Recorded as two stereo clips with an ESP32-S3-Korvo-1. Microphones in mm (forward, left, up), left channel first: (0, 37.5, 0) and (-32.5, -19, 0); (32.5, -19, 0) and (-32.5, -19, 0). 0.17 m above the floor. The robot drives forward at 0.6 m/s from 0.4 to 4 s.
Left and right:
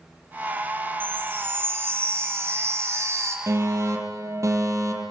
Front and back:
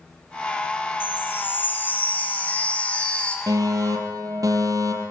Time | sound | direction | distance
1.0 | a chime | 60° right | 5.5 m
3.5 | a fire alarm | 155° right | 7 m